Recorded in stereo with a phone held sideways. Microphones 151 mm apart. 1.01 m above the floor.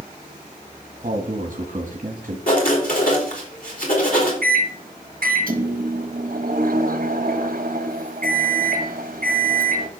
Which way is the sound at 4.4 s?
75° right (ahead or behind).